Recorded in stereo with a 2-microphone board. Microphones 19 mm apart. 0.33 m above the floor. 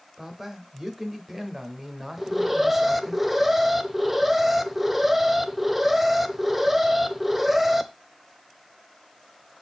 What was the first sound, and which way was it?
A man speaking, 15° right (ahead or behind).